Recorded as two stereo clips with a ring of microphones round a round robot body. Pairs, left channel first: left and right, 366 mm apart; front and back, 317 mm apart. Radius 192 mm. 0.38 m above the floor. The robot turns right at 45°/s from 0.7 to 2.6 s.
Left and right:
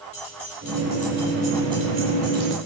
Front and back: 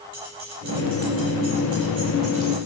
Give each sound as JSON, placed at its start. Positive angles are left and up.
{"t": 0.1, "sound": "keys jangling", "azimuth_deg": 145, "distance_m": 8.5}